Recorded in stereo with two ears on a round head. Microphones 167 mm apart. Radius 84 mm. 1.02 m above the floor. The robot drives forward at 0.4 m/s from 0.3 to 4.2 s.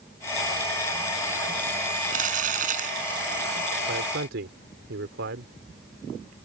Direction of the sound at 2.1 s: 45° right (ahead or behind).